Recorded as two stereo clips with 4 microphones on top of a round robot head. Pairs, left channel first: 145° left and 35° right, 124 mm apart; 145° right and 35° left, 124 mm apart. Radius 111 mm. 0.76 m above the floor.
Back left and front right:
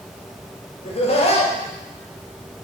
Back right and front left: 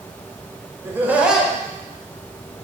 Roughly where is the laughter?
Left.